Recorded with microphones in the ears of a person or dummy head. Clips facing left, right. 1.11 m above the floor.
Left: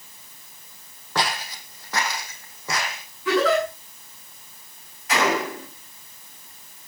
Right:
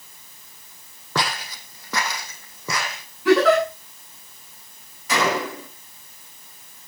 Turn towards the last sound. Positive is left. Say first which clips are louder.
# even
turn(degrees=-85)